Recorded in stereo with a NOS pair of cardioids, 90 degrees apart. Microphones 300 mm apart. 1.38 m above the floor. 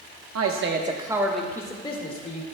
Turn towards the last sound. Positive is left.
turn(degrees=25)